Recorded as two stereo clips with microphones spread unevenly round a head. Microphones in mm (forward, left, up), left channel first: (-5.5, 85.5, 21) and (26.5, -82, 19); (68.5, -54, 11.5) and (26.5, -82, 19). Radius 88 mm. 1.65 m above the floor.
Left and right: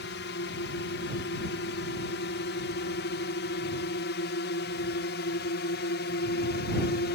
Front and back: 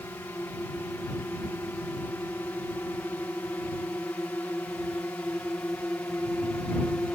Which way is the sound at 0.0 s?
95° left.